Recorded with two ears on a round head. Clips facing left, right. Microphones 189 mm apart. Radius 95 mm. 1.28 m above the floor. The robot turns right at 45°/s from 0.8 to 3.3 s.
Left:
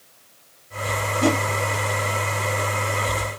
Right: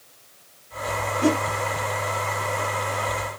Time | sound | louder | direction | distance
1.2 | a whoosh | even | 70° left (ahead or behind) | 2 m